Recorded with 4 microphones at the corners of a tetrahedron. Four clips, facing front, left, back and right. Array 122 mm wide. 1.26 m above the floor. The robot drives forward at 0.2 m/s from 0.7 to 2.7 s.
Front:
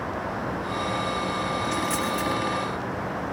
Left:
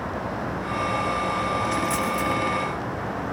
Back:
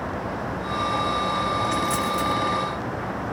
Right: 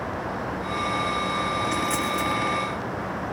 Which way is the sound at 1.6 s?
105° left.